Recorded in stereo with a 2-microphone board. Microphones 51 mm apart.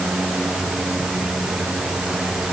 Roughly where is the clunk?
I don't hear a clunk.